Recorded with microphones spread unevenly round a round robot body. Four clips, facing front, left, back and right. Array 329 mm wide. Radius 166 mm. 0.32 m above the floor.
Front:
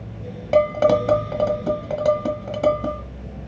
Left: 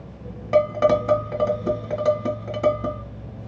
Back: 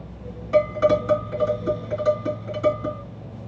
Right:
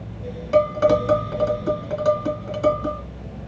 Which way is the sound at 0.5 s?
25° left.